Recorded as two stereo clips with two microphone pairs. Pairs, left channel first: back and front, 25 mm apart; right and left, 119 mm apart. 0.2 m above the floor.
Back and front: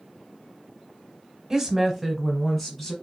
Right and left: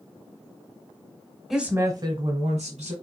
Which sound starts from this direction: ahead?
A woman speaking, at 1.5 s.